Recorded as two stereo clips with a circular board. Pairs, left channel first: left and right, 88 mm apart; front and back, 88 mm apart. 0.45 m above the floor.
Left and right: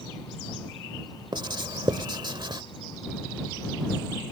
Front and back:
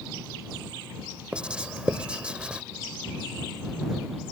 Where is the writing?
100° right.